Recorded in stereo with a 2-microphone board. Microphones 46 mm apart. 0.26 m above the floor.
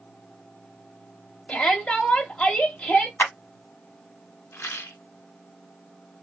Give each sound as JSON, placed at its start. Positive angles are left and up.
{"t": 1.5, "sound": "a shout", "side_deg": 20, "distance_m": 1.0}
{"t": 3.2, "sound": "a clap", "side_deg": 55, "distance_m": 1.2}
{"t": 4.5, "sound": "a rattle", "side_deg": 75, "distance_m": 0.6}